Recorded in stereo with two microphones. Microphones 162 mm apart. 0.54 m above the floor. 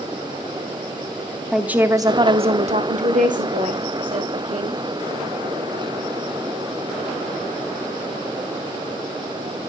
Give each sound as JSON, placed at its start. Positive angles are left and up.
{"t": 1.5, "sound": "a woman speaking", "side_deg": -5, "distance_m": 0.8}